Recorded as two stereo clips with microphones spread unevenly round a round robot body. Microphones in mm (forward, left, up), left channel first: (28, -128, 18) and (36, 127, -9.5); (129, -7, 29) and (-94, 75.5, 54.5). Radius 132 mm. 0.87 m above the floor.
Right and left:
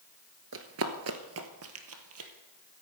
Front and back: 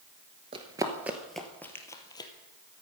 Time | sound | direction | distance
0.5 | running footsteps | 110° left | 1.0 m